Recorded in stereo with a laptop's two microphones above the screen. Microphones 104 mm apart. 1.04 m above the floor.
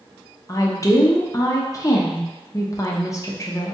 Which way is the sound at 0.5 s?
30° left (ahead or behind).